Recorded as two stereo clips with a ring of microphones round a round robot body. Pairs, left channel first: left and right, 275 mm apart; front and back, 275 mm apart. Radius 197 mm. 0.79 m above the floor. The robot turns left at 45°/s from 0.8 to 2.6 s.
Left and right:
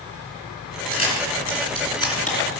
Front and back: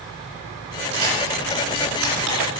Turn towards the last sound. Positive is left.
turn(degrees=140)